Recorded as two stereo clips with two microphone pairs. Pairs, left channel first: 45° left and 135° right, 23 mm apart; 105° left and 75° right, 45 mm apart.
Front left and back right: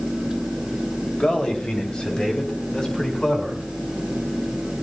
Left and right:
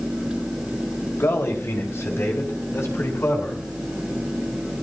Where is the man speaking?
95° left, 3.5 m; by 3.6 s 105° left, 7 m.